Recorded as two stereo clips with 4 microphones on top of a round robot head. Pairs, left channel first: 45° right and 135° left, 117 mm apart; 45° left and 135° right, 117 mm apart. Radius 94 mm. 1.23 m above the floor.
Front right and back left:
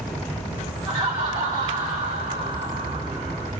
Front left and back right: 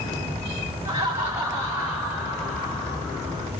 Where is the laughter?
170° left, 1.3 m; by 3.5 s 120° left, 1.9 m.